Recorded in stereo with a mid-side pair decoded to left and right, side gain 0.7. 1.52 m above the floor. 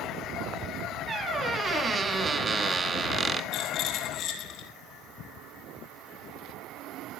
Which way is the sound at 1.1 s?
20° right.